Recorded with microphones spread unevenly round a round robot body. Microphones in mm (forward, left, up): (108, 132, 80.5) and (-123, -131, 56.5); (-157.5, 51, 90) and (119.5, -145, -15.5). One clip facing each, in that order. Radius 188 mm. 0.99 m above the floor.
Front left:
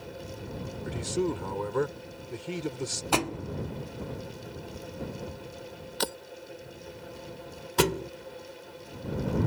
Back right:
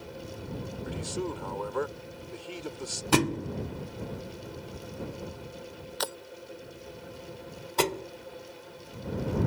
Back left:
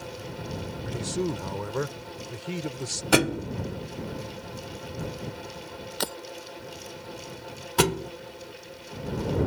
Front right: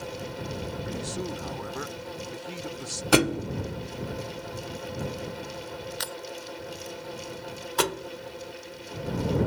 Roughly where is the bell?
I don't hear a bell.